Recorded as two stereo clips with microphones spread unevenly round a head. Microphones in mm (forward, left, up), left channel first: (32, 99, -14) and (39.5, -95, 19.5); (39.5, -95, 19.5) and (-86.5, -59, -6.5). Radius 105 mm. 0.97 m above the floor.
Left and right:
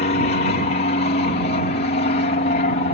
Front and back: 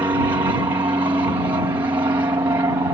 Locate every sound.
0.0 s an aircraft: 105° left